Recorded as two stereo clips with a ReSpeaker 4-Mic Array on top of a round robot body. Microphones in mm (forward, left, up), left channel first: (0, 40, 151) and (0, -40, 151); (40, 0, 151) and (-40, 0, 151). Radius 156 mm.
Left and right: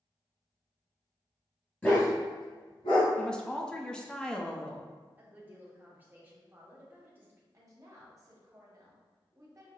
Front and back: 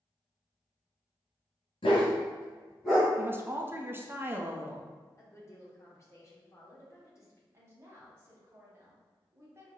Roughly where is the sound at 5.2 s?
Ahead right.